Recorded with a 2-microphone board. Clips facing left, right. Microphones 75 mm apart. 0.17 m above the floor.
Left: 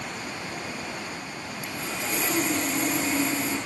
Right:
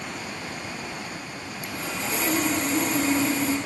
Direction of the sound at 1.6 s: 80° right.